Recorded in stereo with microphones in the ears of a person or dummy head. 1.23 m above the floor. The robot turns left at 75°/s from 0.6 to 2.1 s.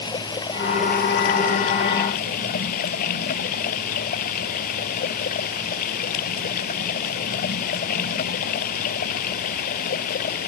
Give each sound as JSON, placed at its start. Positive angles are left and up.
{"t": 0.0, "sound": "running water", "azimuth_deg": 155}